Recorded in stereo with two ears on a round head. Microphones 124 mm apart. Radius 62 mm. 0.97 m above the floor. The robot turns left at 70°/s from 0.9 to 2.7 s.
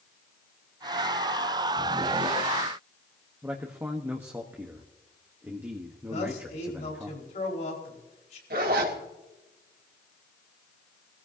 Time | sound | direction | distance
3.4 | a man speaking | 15° right (ahead or behind) | 1.1 m
6.1 | a man speaking | 55° left (ahead or behind) | 4.5 m
8.5 | a zipper | 80° right | 2.5 m